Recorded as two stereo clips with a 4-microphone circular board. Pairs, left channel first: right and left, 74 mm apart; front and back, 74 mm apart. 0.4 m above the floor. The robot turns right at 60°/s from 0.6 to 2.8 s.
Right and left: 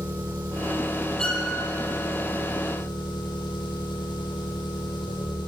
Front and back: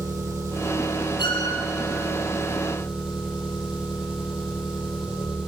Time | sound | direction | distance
0.0 | an engine running | 130° left | 10 m
1.2 | a violin | 10° right | 7 m